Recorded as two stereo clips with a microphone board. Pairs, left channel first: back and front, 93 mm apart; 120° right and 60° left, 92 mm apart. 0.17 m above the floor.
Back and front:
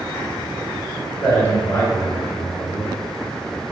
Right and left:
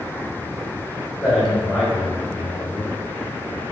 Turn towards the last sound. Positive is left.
turn(degrees=145)